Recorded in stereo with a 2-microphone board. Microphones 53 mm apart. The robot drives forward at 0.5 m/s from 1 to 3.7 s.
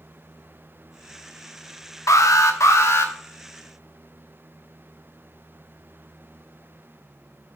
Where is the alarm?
80° left, 0.7 m; by 3.1 s 55° left (ahead or behind), 0.9 m.